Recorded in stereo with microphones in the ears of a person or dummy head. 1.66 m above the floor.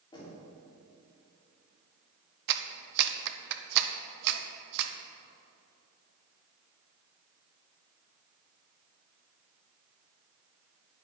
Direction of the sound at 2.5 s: 55° right (ahead or behind).